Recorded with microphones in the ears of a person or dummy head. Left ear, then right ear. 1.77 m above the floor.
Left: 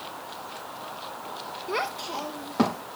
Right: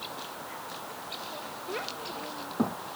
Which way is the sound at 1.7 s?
60° left (ahead or behind).